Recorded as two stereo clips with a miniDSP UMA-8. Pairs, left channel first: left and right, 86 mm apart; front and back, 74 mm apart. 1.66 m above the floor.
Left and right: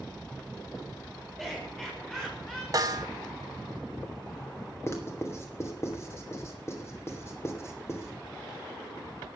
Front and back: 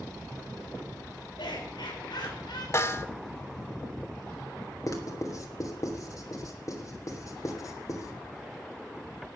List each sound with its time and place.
1.4 s laughter: straight ahead, 7 m; by 2.6 s 10° left, 6.5 m
2.7 s a snare drum: 45° right, 1.5 m
4.9 s writing: 35° left, 2.5 m